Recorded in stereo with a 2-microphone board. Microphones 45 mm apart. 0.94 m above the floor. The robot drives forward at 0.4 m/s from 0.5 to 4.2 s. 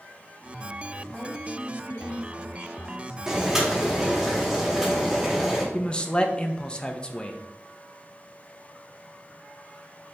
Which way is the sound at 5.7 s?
20° left (ahead or behind).